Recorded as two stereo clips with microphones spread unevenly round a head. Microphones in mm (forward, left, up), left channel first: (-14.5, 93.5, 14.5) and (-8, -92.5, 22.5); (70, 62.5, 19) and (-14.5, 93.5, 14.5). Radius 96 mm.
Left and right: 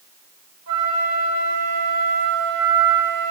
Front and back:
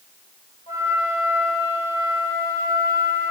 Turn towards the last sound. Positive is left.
turn(degrees=-75)